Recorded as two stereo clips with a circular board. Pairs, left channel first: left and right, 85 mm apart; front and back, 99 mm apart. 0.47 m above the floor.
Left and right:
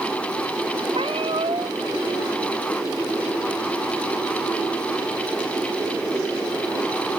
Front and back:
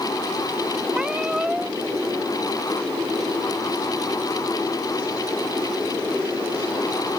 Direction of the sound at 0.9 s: 100° right.